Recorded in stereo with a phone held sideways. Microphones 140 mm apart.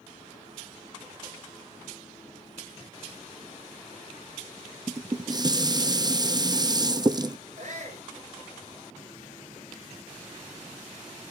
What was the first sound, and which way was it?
Dishes clattering, 30° right (ahead or behind).